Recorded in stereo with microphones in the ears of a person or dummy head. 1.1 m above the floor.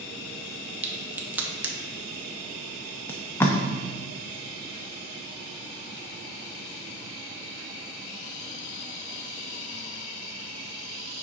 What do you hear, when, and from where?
0.8 s a crack: 10° right (ahead or behind), 0.8 m
3.1 s tape being pulled: 10° left (ahead or behind), 0.6 m